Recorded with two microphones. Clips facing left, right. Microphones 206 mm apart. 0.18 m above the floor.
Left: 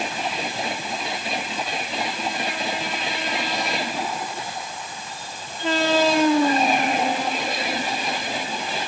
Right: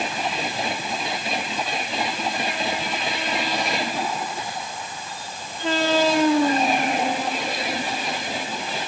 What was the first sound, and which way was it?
Only background noise.